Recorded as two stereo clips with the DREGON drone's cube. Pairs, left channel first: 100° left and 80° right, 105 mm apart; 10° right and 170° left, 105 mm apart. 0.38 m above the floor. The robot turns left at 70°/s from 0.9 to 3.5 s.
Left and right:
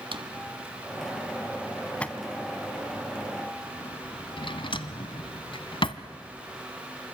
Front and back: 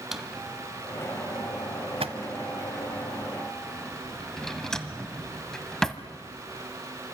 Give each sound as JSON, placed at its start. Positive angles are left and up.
{"t": 0.1, "sound": "a drawer", "azimuth_deg": -105, "distance_m": 1.3}